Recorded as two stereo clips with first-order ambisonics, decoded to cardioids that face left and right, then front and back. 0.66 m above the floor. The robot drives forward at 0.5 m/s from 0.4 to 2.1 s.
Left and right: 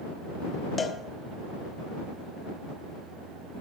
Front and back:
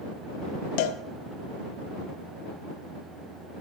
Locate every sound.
0.8 s a cowbell: 10° left, 0.8 m; by 1.0 s 15° left, 0.7 m